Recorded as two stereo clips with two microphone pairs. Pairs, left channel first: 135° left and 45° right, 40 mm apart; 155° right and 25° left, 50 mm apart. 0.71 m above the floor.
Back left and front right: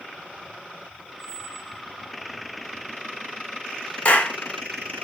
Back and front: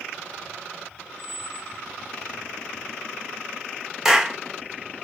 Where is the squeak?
5° right, 0.5 m.